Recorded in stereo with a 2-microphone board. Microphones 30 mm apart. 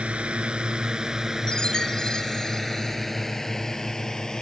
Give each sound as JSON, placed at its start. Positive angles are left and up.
{"t": 0.0, "sound": "a drone", "side_deg": -40}
{"t": 1.5, "sound": "a chime", "side_deg": 25}